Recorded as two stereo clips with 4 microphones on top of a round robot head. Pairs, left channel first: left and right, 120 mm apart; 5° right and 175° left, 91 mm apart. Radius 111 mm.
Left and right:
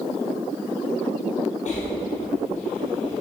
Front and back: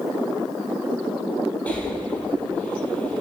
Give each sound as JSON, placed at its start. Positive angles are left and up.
{"t": 1.7, "sound": "breathing", "azimuth_deg": 75, "distance_m": 3.0}